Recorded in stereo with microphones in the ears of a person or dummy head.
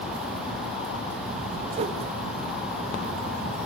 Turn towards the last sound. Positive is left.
turn(degrees=-35)  # may be behind; listen again after turning